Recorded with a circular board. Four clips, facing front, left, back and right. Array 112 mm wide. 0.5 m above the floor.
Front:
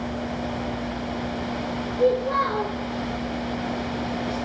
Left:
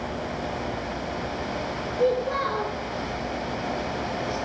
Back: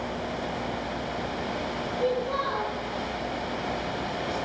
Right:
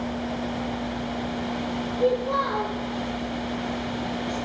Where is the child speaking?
45° left, 5 m.